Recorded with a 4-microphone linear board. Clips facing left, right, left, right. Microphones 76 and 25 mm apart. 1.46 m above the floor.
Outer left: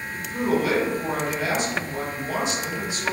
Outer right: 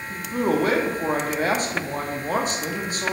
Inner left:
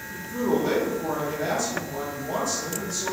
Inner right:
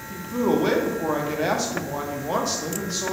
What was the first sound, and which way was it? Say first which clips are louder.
A man speaking: outer right 1 dB, inner right 3 dB; 50° right (ahead or behind).